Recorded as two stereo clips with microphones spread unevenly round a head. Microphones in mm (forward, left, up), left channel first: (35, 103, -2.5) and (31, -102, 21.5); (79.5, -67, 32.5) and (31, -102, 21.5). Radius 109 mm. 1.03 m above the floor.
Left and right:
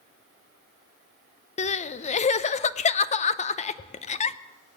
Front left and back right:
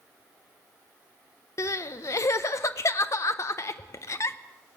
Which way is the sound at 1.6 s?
60° left.